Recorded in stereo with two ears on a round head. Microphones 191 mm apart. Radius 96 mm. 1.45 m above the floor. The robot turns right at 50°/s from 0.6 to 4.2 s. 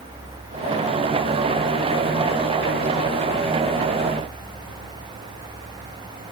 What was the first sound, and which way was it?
Only background noise.